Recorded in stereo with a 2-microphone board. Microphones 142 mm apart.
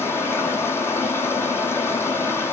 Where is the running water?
15° left (ahead or behind), 0.7 m.